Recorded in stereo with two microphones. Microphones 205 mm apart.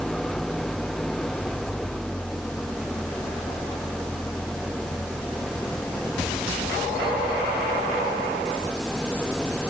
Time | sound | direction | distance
0.0 | an engine running | centre (ahead or behind) | ?